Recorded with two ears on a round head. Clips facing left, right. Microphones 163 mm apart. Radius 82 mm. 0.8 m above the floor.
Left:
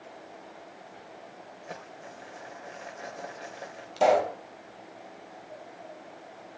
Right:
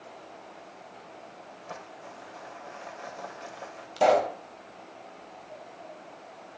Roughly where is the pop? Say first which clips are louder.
Even; centre.